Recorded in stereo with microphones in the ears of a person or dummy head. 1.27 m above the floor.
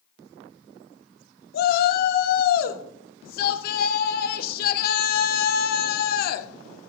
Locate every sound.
1.5 s a shout: 55° left (ahead or behind), 1.1 m